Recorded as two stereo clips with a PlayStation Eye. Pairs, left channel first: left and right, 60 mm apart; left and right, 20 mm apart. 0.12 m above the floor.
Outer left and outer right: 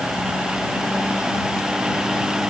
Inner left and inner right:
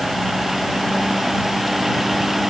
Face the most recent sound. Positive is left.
No sound to turn to.